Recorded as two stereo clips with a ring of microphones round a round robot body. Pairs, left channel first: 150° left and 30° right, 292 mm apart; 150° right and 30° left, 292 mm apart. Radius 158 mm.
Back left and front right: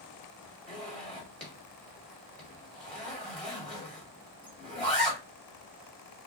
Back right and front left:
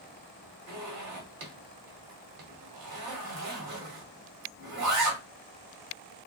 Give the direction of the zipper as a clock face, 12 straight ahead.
10 o'clock.